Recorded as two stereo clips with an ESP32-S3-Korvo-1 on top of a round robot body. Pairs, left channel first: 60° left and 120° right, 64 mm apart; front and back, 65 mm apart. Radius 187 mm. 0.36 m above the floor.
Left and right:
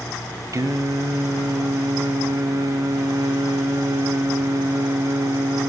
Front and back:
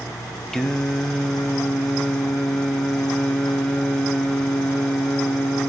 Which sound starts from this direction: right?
Singing, at 0.5 s.